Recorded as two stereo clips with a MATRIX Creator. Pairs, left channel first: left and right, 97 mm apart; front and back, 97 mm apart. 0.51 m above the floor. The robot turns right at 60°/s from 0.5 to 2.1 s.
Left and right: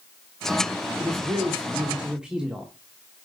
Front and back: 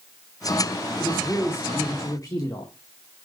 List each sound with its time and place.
1.0 s a man speaking: 80° right, 1.3 m; by 2.7 s 10° right, 1.3 m